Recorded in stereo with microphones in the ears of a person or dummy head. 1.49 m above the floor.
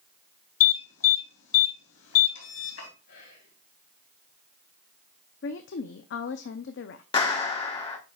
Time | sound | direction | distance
0.6 | an alarm | 75° left (ahead or behind) | 2.5 m
3.1 | whispering | 65° left (ahead or behind) | 3 m
5.4 | a woman speaking | 60° left (ahead or behind) | 0.5 m
7.1 | a clap | 25° left (ahead or behind) | 1.3 m